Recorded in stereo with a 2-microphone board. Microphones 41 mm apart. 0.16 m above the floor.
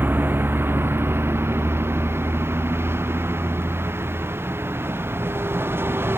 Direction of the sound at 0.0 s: 55° right (ahead or behind).